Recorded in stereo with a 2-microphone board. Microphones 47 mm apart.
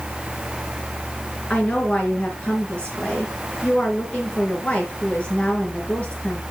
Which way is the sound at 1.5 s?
25° left (ahead or behind).